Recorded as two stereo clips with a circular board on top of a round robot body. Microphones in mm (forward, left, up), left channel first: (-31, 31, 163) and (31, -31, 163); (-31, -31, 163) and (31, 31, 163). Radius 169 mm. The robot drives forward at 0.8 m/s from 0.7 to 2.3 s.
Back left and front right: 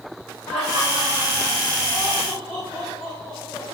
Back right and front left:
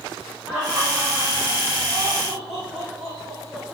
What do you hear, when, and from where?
0.5 s laughter: 125° left, 5 m; by 3.6 s 135° left, 6 m